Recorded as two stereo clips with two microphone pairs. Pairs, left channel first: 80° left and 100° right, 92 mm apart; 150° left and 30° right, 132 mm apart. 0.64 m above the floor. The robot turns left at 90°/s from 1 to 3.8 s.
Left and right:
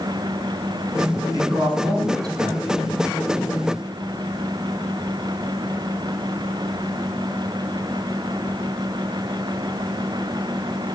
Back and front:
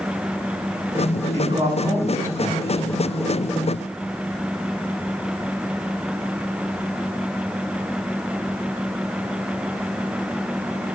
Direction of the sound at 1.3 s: 55° right.